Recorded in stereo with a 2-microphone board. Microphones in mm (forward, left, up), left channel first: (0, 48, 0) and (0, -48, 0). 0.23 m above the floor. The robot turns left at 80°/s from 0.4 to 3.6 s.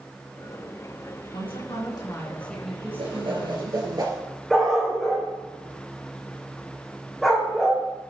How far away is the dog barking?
About 4 m.